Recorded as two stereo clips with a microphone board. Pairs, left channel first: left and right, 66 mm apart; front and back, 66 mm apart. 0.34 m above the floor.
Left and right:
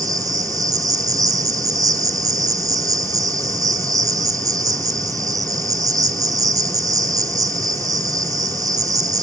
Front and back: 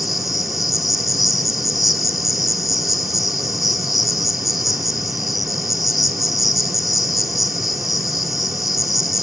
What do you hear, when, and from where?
0.0 s an insect: 90° right, 1.9 m